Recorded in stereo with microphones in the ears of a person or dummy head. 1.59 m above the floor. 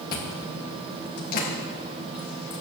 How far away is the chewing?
About 1.8 m.